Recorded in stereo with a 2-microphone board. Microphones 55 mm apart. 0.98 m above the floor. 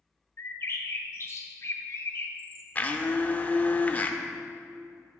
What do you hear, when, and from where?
0.4 s a bird: 50° left (ahead or behind), 0.9 m
2.8 s a blender: 30° left (ahead or behind), 0.6 m